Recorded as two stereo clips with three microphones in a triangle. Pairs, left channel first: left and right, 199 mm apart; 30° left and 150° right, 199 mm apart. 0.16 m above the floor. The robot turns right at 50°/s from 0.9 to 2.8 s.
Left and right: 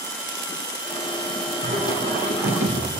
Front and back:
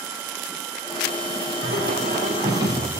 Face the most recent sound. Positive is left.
turn(degrees=-70)